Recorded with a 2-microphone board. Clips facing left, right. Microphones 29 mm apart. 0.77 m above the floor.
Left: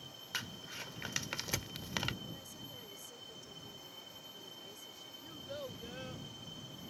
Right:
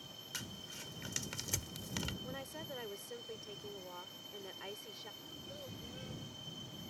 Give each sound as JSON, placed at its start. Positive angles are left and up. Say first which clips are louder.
{"t": 0.3, "sound": "crumpling", "louder": "left 5 dB", "side_deg": 35}
{"t": 2.2, "sound": "a woman speaking", "louder": "right 4 dB", "side_deg": -60}
{"t": 5.2, "sound": "a child speaking", "louder": "left 4 dB", "side_deg": 35}